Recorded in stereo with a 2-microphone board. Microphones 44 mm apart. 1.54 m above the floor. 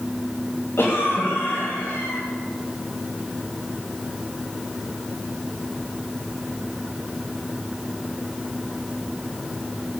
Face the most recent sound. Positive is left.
turn(degrees=55)  # may be behind; listen again after turning